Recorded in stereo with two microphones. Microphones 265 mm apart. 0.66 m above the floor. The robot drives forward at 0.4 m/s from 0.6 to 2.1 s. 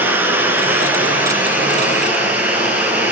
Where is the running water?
5° right (ahead or behind), 1.6 m.